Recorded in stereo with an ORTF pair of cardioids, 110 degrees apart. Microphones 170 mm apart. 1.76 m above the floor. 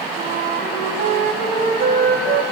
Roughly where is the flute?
Ahead right.